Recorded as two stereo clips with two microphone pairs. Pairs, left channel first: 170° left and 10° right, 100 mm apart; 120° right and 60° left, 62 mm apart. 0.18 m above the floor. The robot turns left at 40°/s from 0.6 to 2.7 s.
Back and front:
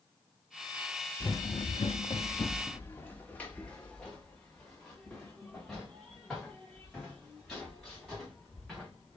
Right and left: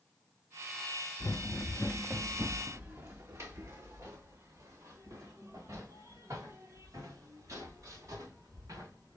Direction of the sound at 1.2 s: 115° right.